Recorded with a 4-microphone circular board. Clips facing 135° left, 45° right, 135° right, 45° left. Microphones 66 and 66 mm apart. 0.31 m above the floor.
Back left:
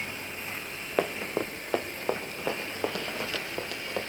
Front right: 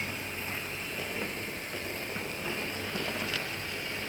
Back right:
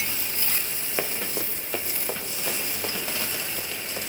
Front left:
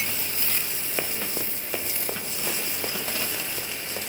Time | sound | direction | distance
1.0 | running footsteps | 140° left | 1.5 m